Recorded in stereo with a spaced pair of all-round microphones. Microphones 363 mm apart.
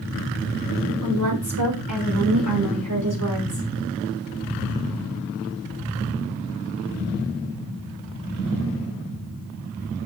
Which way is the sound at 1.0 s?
60° right (ahead or behind).